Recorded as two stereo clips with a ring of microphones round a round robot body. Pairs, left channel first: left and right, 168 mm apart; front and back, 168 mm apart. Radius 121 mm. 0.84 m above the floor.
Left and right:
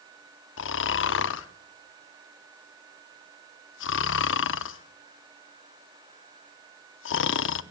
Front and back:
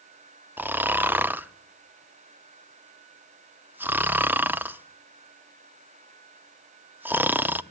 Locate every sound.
0.6 s snoring: 100° left, 0.8 m